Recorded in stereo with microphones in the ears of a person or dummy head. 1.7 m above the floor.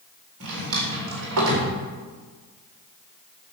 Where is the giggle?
I don't hear a giggle.